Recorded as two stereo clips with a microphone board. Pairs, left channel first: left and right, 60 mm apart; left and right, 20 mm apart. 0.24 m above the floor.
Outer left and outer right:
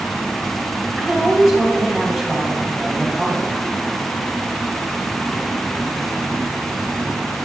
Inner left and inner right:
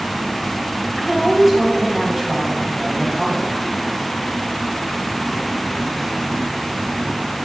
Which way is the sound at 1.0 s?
Centre (ahead or behind).